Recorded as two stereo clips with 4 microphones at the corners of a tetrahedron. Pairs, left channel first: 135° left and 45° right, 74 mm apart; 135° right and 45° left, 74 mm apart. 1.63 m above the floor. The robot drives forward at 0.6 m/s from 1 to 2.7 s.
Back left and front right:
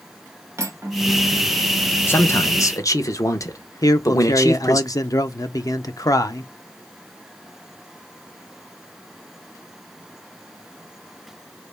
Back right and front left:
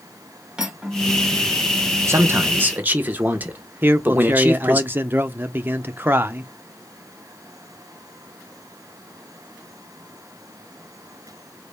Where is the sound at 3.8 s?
105° left, 0.7 m.